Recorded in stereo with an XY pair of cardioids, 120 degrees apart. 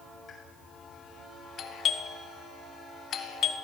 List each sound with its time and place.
0.3 s a pop: 40° left, 7.5 m
1.6 s a doorbell: 55° left, 1.8 m